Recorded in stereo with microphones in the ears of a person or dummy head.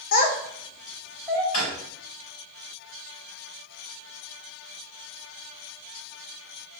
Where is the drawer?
45° left (ahead or behind), 2 m.